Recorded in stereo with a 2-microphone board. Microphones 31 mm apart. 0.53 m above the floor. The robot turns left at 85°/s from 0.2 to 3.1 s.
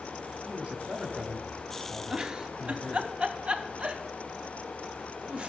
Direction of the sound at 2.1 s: 15° right (ahead or behind).